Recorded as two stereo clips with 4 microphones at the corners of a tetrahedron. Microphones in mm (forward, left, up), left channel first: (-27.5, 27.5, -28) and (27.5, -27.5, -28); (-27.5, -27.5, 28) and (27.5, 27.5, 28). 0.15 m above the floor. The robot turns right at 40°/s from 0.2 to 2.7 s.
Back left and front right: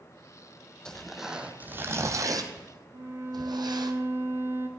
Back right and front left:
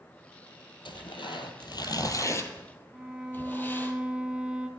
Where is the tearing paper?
145° right, 0.8 m; by 3.9 s 70° right, 0.8 m.